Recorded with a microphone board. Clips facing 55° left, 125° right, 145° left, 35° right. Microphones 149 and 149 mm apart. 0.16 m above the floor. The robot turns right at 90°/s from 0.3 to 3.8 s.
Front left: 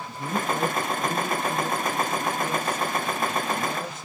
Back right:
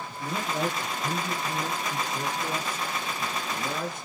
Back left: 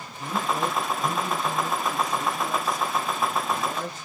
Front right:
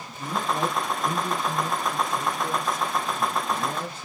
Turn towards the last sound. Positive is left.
turn(degrees=5)